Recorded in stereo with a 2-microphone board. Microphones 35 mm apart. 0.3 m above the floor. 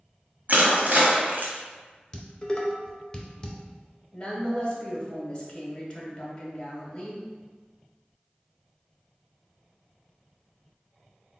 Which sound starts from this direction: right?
Crushing, at 0.5 s.